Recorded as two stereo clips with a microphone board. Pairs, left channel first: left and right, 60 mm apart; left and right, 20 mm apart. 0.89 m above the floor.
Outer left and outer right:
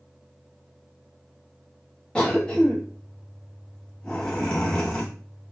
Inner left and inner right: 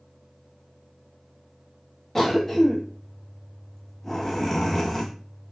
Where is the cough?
15° left (ahead or behind), 1.0 m.